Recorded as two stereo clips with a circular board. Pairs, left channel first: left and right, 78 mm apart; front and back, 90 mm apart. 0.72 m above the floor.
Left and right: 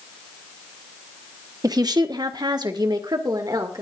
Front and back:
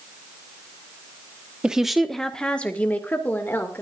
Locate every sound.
1.6 s a woman speaking: 100° right, 1.0 m; by 3.8 s 65° right, 2 m